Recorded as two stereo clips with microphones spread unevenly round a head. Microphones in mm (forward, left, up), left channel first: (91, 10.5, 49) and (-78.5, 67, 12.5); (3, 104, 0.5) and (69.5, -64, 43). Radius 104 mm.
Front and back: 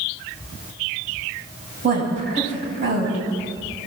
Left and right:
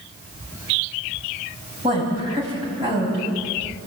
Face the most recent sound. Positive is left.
turn(degrees=-140)